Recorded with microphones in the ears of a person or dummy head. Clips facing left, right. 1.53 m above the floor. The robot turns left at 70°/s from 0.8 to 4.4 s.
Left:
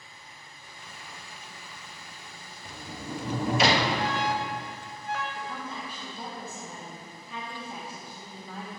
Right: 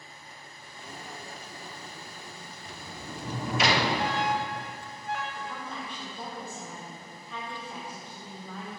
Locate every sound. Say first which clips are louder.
2.6 s a sliding door: left 5 dB; 100° left, 0.9 m; by 3.9 s 15° left, 0.9 m
4.0 s an alarm: even; 50° left (ahead or behind), 1.2 m; by 5.2 s 65° left (ahead or behind), 1.2 m
5.3 s a woman speaking: left 1 dB; 10° left (ahead or behind), 3 m